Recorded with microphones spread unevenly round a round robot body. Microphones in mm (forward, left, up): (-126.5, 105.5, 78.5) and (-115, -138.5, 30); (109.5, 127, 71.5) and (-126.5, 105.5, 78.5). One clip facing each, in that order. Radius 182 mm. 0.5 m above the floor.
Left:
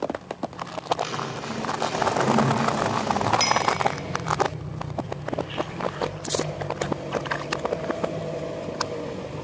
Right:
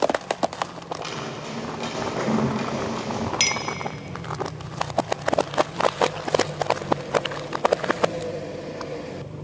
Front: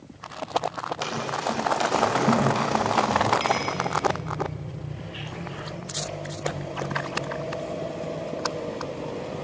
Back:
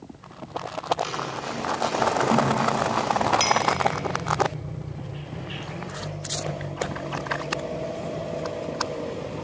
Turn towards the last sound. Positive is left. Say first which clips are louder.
# left 4 dB, back 1 dB
turn(degrees=-130)